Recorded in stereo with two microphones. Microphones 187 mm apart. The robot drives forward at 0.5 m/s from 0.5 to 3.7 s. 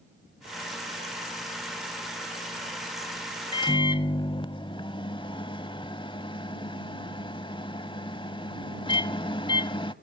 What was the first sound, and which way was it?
A microwave, 25° left (ahead or behind).